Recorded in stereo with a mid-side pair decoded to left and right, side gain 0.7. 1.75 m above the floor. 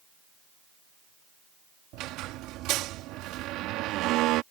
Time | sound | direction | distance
1.9 | a squeak | 60° right | ?